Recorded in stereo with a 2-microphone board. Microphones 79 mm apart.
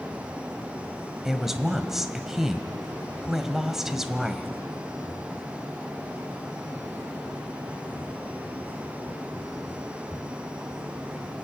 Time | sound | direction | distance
1.2 | a woman speaking | 5° right (ahead or behind) | 1.1 m